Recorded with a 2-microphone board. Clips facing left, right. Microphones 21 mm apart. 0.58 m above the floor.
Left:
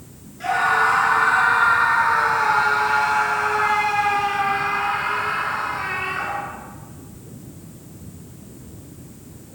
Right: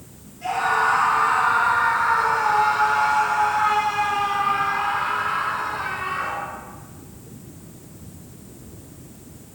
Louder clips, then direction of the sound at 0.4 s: Left 2 dB; 75° left (ahead or behind).